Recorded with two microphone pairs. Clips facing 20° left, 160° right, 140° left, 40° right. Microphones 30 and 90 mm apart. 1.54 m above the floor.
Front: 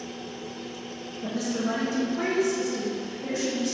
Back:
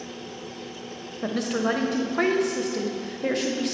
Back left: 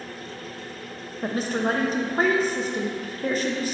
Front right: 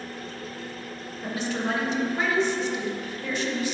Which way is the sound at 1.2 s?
170° right.